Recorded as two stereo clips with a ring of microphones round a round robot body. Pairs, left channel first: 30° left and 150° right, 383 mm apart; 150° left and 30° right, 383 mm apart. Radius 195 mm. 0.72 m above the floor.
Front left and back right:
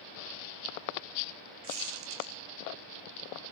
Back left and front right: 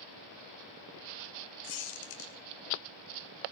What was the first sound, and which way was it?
A squeak, 160° left.